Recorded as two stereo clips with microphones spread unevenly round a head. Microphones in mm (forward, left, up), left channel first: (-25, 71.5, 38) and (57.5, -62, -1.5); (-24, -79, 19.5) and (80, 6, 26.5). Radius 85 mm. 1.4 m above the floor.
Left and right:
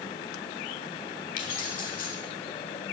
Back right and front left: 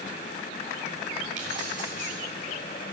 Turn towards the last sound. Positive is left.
turn(degrees=85)